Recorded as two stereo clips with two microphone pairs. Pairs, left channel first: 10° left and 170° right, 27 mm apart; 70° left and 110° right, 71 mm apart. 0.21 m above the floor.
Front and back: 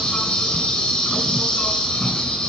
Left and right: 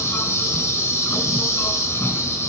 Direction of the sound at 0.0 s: 45° left.